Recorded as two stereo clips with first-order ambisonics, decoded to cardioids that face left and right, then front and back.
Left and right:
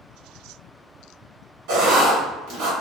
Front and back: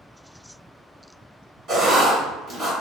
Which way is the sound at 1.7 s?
120° right.